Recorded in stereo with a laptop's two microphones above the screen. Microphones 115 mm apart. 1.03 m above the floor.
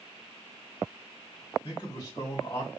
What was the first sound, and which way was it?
A man speaking, 45° left (ahead or behind).